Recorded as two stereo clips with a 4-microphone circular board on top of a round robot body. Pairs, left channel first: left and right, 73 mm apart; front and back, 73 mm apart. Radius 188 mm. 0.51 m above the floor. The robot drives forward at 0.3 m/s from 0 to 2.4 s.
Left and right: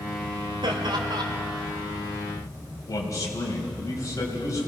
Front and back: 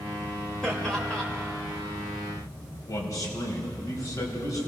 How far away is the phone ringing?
No phone ringing in this recording.